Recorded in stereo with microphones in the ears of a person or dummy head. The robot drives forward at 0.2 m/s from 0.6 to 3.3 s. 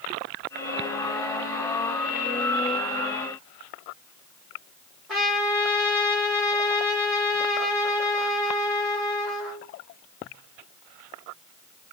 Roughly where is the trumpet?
Centre.